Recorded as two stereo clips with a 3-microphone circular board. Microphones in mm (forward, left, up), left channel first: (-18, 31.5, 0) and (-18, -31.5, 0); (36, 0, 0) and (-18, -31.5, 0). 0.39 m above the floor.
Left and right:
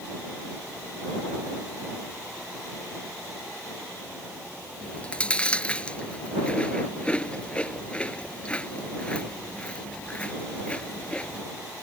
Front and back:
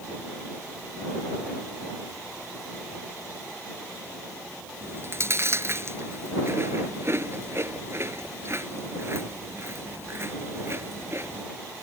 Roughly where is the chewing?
Behind.